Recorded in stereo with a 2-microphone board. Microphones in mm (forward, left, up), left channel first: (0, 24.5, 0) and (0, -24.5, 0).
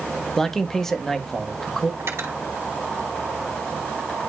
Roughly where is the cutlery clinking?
Right.